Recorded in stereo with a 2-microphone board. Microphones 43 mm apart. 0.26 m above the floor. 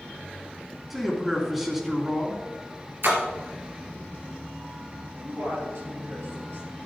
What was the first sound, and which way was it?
A man speaking, 5° right (ahead or behind).